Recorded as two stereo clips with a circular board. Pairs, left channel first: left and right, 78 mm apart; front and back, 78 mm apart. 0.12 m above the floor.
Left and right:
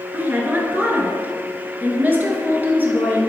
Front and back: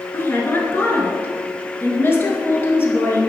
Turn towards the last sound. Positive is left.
turn(degrees=-40)